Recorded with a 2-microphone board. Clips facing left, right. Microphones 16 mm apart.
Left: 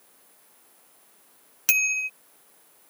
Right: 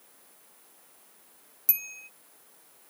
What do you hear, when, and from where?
1.7 s a bicycle bell: 55° left (ahead or behind)